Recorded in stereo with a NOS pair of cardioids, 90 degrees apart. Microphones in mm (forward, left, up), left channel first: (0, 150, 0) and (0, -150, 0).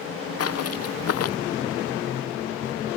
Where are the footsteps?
55° left.